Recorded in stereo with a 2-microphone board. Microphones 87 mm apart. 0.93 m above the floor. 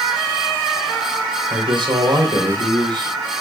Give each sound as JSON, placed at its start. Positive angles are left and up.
{"t": 1.5, "sound": "a woman speaking", "side_deg": -65, "distance_m": 3.5}